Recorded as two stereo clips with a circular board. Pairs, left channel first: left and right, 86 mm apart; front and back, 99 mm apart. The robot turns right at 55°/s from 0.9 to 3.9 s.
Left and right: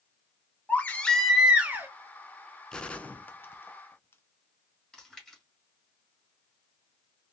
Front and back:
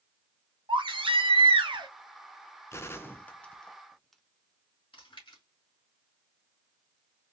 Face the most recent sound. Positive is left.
turn(degrees=5)